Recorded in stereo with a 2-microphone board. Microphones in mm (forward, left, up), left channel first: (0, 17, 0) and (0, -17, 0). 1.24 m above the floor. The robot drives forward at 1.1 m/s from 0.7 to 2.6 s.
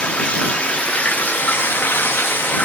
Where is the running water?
40° left (ahead or behind), 2 m; by 2.6 s 65° left (ahead or behind), 1.5 m.